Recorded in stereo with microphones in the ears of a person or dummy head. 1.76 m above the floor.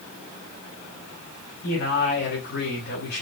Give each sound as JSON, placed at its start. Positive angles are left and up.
{"t": 1.6, "sound": "a man speaking", "side_deg": 50, "distance_m": 9.5}